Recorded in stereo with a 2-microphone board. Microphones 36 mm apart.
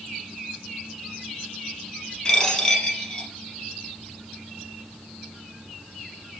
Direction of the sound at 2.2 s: 25° left (ahead or behind).